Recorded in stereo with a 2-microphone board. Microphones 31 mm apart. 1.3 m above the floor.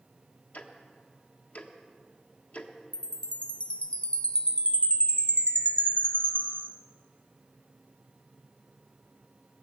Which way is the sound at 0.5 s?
55° left (ahead or behind).